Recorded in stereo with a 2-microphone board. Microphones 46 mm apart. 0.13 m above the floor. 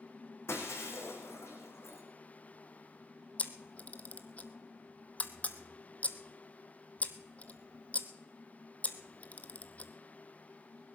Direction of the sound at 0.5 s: 80° left.